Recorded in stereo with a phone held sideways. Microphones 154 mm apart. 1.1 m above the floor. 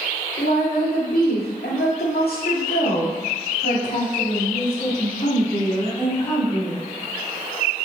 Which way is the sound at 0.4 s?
70° left (ahead or behind).